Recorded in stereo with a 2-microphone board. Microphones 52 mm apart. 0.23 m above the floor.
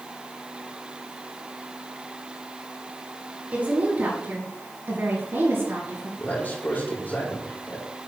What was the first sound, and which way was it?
A woman speaking, 30° right (ahead or behind).